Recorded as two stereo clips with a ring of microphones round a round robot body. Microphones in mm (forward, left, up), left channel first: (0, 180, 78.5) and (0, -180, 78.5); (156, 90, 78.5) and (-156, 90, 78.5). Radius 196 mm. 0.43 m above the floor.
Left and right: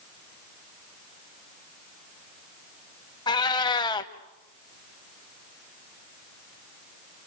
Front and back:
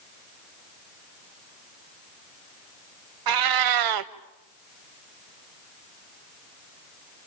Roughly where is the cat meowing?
Behind.